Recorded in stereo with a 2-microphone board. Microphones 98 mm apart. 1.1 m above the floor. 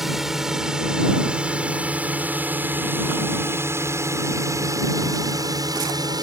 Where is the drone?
5° right (ahead or behind); by 6.2 s 45° right (ahead or behind).